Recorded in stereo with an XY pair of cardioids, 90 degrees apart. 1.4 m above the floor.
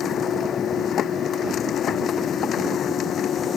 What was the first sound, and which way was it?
A machine running, 70° left.